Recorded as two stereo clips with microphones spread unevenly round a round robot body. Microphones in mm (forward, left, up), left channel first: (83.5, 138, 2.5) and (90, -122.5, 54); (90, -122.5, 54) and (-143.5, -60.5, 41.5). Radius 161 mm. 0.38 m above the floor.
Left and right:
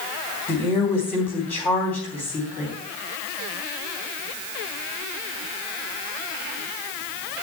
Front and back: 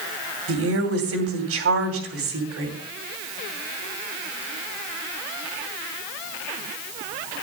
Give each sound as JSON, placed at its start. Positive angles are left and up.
{"t": 0.5, "sound": "a woman speaking", "azimuth_deg": 170, "distance_m": 2.5}